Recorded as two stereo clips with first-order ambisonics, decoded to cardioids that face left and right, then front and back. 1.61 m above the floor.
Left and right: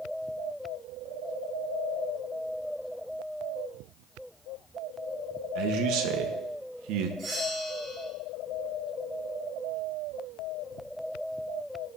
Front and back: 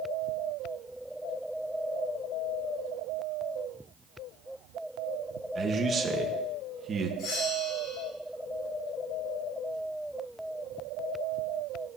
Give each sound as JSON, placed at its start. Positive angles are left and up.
{"t": 5.5, "sound": "a man speaking", "azimuth_deg": -105, "distance_m": 1.7}
{"t": 7.2, "sound": "a bell", "azimuth_deg": -30, "distance_m": 8.5}